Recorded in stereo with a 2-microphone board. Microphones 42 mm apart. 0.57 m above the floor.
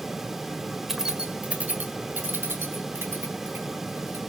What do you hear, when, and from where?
0.9 s keys jangling: 5° right (ahead or behind), 1.5 m; by 4.2 s 80° right, 4.5 m